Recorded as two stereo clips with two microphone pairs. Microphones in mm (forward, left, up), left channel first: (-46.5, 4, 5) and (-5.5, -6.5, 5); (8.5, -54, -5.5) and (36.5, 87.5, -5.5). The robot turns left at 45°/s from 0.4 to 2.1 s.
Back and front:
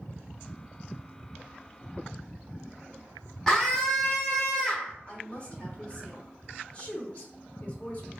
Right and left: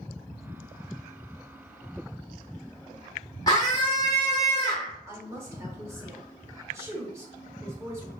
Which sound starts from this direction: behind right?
A scream, at 3.5 s.